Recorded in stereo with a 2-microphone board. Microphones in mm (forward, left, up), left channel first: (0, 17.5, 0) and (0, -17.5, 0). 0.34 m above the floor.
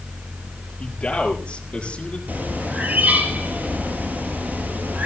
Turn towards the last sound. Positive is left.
turn(degrees=-55)  # may be behind; listen again after turning